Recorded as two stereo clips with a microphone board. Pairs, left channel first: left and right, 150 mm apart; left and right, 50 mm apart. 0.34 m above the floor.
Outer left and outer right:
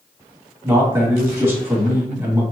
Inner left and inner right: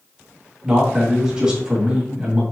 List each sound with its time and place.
0.6 s a man speaking: 15° right (ahead or behind), 1.8 m